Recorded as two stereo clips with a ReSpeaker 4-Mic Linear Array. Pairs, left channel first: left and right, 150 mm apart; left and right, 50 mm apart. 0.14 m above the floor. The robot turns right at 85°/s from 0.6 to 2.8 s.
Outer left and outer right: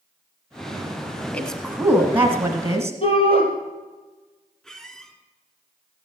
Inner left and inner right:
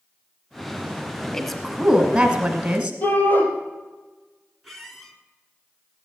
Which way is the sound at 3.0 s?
40° left (ahead or behind).